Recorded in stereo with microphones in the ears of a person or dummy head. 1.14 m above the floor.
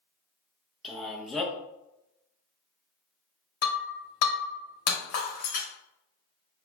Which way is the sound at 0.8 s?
Centre (ahead or behind).